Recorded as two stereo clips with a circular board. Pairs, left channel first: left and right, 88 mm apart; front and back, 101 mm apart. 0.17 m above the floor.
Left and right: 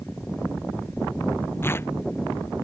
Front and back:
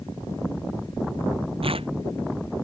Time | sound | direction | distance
1.6 | tearing paper | 155° left | ?